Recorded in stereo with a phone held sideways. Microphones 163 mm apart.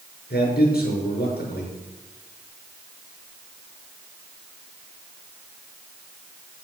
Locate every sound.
0.3 s a man speaking: 70° left (ahead or behind), 6.5 m